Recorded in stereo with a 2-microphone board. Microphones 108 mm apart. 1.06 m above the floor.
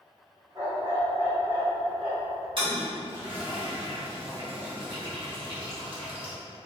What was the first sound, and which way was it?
A dog barking, 35° right (ahead or behind).